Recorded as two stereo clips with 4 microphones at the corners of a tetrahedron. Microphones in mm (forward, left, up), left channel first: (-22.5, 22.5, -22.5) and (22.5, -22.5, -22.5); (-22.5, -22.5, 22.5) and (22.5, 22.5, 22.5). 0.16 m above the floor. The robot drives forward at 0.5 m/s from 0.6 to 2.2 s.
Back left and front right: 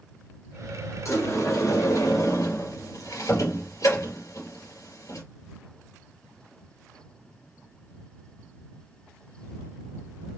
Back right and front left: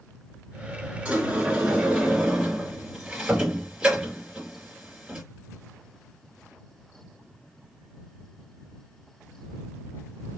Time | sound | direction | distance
1.1 | a sliding door | 115° left | 3 m